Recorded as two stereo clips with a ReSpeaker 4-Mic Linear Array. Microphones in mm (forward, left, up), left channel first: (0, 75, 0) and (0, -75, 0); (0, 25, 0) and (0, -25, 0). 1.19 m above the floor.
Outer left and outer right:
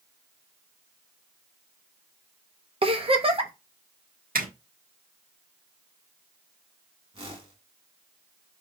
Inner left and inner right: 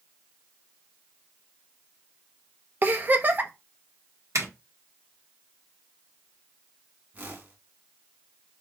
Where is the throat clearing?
No throat clearing in this recording.